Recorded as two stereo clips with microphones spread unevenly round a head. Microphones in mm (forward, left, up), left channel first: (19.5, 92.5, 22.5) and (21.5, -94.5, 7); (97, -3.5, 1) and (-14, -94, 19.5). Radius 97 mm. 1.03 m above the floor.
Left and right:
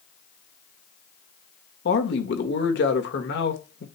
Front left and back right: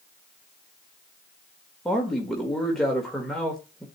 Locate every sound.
1.9 s a man speaking: 125° left, 1.5 m